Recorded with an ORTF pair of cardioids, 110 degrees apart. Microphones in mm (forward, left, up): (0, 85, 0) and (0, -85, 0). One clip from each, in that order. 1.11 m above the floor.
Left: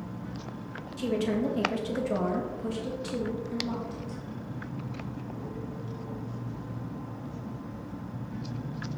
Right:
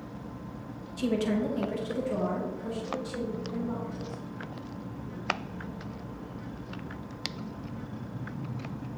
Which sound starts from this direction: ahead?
A woman speaking, at 1.0 s.